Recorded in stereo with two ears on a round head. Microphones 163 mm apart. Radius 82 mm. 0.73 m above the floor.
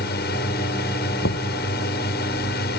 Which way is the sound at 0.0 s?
55° left (ahead or behind).